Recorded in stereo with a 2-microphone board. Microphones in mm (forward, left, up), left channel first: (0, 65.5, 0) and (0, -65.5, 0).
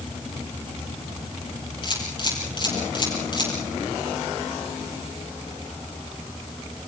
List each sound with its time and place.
1.8 s a camera shutter: 35° left (ahead or behind), 7.5 m